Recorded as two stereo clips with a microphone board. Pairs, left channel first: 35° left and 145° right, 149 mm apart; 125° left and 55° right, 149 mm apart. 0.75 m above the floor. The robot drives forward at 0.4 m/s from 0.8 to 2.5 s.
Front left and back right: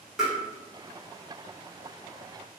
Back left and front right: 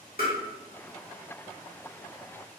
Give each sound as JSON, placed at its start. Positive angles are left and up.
{"t": 0.2, "sound": "tapping", "azimuth_deg": 125, "distance_m": 1.2}